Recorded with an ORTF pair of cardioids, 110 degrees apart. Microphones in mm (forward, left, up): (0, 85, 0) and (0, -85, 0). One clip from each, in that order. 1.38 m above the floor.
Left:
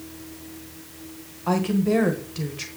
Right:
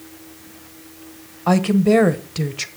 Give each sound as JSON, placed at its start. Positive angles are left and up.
{"t": 1.5, "sound": "a woman speaking", "azimuth_deg": -40, "distance_m": 1.2}